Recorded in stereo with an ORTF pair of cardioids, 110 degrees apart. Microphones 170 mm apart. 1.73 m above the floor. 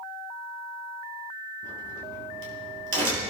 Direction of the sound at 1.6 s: 55° right.